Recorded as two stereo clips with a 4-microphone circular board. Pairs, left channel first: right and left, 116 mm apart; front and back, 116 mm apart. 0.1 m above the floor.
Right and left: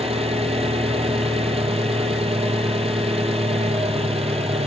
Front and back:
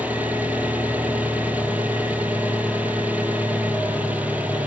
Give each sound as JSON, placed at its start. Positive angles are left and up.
{"t": 0.0, "sound": "an engine running", "azimuth_deg": 105, "distance_m": 0.9}